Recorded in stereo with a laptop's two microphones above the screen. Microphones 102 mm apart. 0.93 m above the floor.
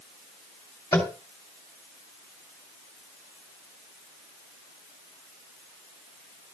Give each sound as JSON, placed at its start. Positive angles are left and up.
{"t": 0.9, "sound": "tapping", "side_deg": 35, "distance_m": 2.0}